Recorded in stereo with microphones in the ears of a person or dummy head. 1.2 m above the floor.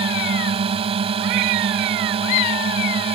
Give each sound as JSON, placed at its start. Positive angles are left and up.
{"t": 0.0, "sound": "a drone", "side_deg": -30}